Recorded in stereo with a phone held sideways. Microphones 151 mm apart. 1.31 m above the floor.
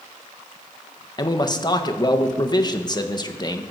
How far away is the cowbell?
I don't hear a cowbell.